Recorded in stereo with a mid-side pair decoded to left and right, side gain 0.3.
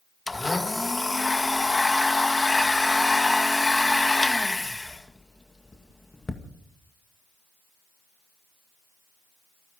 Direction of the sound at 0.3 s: 25° left.